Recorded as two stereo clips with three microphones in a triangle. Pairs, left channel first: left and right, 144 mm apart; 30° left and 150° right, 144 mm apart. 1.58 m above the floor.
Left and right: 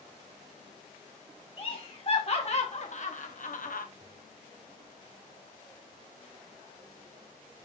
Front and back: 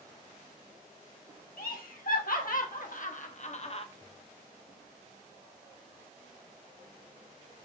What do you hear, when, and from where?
1.6 s laughter: 40° left, 2.5 m; by 3.9 s 75° left, 1.2 m